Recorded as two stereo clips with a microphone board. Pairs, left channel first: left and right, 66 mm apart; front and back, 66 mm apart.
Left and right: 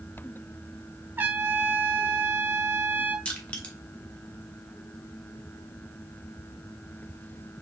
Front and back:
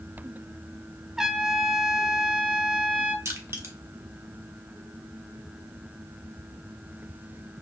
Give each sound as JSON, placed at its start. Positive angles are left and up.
{"t": 1.2, "sound": "a trumpet", "azimuth_deg": -105, "distance_m": 0.6}
{"t": 3.2, "sound": "crushing", "azimuth_deg": 155, "distance_m": 1.0}